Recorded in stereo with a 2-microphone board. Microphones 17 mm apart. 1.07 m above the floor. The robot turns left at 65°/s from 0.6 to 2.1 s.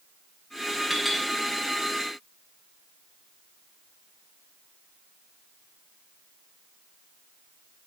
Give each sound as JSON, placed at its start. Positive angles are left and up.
{"t": 0.9, "sound": "a clink", "side_deg": -5, "distance_m": 7.0}